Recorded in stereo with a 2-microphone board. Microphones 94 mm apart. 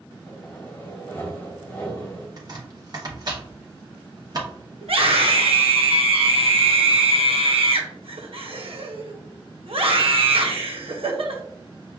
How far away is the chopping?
About 0.9 m.